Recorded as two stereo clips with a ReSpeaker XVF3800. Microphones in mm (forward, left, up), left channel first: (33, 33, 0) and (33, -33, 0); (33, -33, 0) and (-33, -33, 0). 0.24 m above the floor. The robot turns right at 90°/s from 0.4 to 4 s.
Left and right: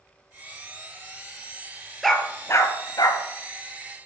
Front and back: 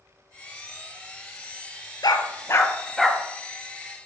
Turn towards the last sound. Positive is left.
turn(degrees=175)